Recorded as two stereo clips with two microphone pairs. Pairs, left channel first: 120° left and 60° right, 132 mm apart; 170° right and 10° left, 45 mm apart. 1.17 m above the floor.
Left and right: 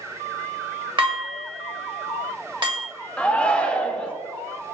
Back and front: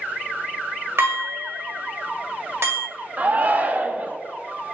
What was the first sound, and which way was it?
Dishes clattering, 10° right.